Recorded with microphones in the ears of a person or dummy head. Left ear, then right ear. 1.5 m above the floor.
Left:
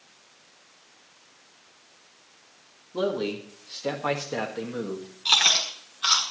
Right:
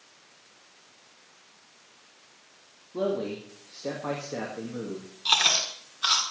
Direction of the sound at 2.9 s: 15° left (ahead or behind).